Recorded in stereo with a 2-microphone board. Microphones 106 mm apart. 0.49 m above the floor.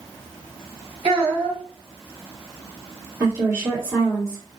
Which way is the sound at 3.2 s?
30° right (ahead or behind).